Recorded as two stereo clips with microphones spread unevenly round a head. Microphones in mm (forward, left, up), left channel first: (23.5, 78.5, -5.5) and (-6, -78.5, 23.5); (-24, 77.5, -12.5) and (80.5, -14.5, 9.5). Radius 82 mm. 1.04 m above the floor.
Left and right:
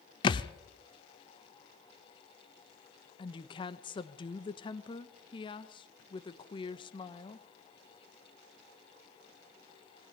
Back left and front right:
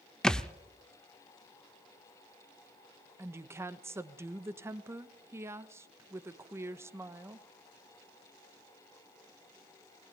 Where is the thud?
40° left, 0.6 m.